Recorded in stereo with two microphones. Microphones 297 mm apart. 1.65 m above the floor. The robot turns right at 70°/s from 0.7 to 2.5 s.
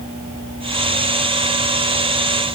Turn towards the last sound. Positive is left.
No sound to turn to.